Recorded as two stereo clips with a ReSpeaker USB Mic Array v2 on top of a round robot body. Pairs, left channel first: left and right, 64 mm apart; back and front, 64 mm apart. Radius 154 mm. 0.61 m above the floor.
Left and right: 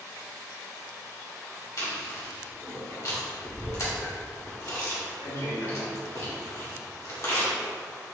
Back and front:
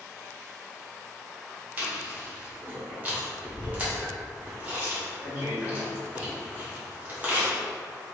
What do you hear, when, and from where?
1.8 s chewing: 65° left, 1.8 m